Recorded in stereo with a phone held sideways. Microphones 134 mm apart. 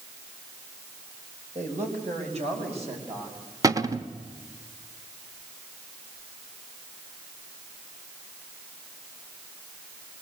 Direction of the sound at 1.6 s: 60° right (ahead or behind).